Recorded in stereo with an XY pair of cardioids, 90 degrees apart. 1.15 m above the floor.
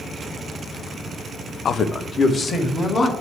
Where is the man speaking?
60° left, 0.7 m; by 3.1 s 40° left, 2.5 m.